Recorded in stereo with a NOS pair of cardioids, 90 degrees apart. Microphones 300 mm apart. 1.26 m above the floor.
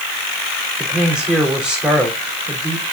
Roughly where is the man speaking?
Ahead.